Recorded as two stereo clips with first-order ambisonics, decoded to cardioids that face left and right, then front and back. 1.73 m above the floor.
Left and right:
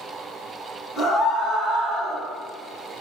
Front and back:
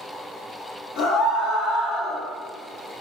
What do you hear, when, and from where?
1.0 s a scream: 10° left, 0.9 m; by 2.2 s 75° right, 0.7 m